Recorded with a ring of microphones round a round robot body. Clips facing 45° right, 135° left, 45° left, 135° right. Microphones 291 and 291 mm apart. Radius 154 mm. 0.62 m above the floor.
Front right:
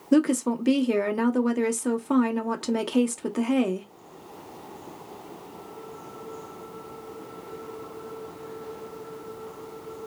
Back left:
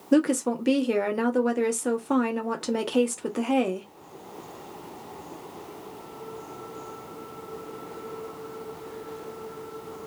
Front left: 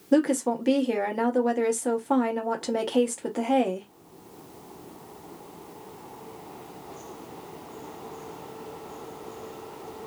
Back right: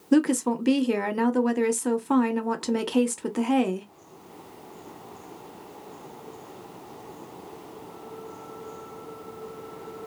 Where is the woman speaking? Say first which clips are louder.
Front right 1 dB, back right 1 dB; 125° right, 0.5 m.